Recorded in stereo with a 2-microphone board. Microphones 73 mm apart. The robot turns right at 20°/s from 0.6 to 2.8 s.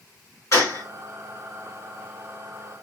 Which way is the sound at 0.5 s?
45° left (ahead or behind).